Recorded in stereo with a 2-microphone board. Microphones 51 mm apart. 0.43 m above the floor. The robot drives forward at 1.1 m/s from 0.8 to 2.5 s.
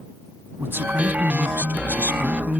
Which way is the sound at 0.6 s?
45° right (ahead or behind).